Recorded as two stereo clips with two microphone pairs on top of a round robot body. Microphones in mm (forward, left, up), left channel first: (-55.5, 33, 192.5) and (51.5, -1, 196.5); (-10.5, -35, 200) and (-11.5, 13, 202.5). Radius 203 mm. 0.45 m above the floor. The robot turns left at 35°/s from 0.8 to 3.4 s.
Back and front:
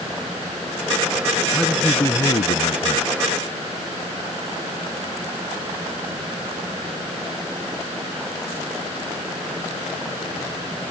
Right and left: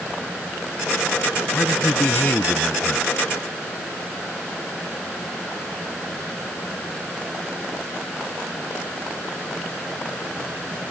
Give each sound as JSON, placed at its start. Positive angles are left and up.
{"t": 1.5, "sound": "a man speaking", "azimuth_deg": -115}